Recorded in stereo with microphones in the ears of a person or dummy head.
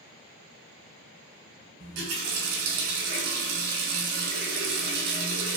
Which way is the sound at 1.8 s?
50° right (ahead or behind).